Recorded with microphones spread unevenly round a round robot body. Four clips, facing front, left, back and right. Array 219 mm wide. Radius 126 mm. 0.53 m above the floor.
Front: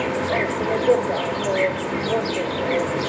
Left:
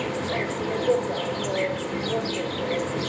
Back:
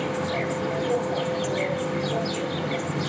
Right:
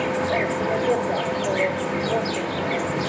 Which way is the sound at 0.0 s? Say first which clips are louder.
Right 5 dB, front 4 dB; 15° right.